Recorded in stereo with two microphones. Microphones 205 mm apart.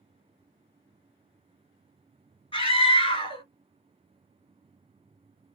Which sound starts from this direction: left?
A scream, at 2.5 s.